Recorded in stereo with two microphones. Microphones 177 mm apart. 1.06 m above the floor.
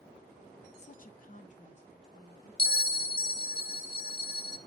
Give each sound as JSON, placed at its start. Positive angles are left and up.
{"t": 0.8, "sound": "a woman speaking", "side_deg": 40, "distance_m": 0.5}
{"t": 2.6, "sound": "a bell", "side_deg": 50, "distance_m": 0.6}